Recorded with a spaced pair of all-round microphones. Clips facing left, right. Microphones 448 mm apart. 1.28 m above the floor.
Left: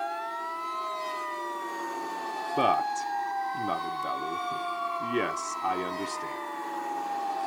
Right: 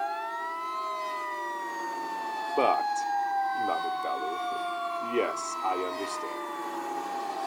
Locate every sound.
2.6 s a man speaking: 35° left (ahead or behind), 0.7 m